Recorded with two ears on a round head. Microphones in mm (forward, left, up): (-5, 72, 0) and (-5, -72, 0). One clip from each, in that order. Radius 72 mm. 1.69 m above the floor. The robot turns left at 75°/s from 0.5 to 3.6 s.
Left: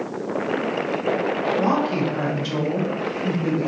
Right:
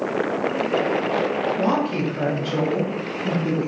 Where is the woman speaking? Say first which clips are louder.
Left 1 dB; 175° right, 1.2 m; by 3.7 s 35° left, 1.2 m.